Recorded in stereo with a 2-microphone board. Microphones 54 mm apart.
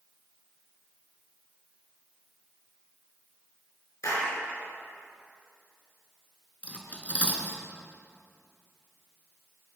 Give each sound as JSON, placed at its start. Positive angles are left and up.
{"t": 4.0, "sound": "a clap", "side_deg": 70, "distance_m": 3.5}
{"t": 6.6, "sound": "cutlery clinking", "side_deg": 25, "distance_m": 1.9}